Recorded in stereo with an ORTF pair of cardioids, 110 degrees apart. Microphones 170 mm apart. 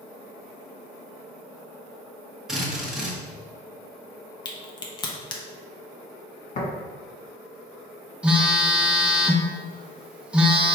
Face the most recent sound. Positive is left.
turn(degrees=-5)